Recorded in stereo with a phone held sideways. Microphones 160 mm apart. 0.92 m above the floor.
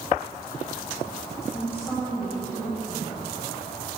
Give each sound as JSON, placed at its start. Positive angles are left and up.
{"t": 1.5, "sound": "a woman speaking", "side_deg": 10, "distance_m": 6.5}